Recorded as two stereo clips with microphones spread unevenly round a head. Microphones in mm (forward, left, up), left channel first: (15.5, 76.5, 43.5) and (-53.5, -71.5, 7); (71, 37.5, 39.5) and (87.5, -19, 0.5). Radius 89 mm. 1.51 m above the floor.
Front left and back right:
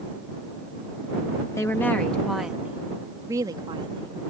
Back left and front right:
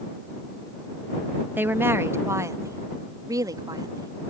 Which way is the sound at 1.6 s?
5° right.